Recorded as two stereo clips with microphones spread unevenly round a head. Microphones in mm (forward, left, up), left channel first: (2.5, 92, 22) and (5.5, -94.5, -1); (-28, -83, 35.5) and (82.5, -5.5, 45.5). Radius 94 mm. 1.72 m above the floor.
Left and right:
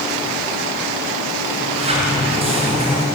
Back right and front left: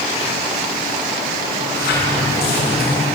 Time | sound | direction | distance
1.5 | a sliding door | 150° right | 7 m